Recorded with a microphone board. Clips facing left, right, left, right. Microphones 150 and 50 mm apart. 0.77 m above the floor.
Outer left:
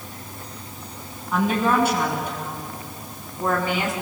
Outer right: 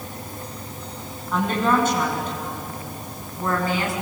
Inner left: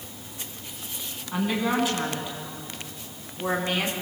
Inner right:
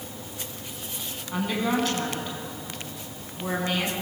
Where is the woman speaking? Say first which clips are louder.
Even, inner left 1 dB; 5° left (ahead or behind), 7 m; by 3.9 s 20° left (ahead or behind), 6.5 m.